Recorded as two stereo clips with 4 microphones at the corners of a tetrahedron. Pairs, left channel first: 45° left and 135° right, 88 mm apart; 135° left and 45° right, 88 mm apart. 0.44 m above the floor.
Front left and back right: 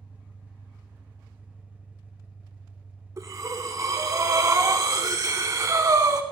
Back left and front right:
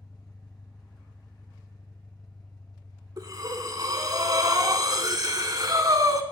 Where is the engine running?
160° left, 2 m.